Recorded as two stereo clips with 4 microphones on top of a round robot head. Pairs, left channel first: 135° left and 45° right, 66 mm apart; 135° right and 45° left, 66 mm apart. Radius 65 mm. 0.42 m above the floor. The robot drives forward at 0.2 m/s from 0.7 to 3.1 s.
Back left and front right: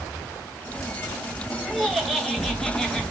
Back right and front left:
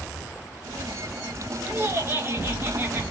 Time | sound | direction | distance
1.7 | laughter | 40° left | 1.1 m